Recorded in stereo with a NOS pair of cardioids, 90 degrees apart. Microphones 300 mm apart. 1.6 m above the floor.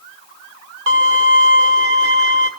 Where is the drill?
I don't hear a drill.